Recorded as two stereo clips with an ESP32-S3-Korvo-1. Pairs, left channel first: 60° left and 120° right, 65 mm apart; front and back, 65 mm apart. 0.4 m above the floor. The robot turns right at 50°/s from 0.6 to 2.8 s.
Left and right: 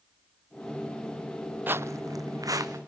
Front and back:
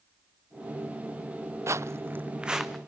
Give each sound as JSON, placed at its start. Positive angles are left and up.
{"t": 1.7, "sound": "footsteps", "azimuth_deg": -170, "distance_m": 0.5}